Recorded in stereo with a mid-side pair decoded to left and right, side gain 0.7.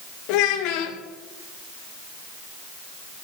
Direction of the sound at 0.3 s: 70° left.